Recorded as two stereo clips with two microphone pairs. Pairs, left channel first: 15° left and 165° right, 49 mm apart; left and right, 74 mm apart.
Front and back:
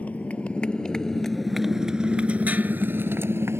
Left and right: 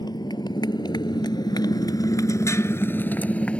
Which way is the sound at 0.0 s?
75° left.